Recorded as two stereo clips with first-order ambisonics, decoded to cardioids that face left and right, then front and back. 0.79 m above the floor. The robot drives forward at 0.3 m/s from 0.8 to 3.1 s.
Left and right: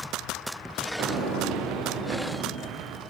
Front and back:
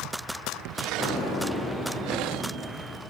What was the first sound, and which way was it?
An explosion, 55° right.